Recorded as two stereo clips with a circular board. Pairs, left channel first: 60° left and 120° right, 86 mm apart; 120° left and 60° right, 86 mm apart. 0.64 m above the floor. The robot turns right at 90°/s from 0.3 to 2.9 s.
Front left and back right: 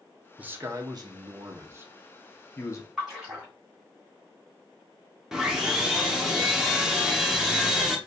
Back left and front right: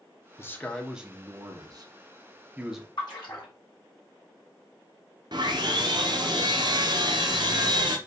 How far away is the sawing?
About 0.9 m.